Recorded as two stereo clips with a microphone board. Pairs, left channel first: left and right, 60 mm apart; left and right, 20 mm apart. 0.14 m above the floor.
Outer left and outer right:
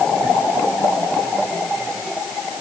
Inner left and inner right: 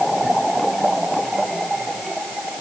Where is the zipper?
I don't hear a zipper.